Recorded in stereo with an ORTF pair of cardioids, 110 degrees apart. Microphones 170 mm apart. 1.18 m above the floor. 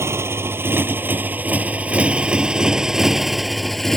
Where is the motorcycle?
15° right; by 4.0 s straight ahead.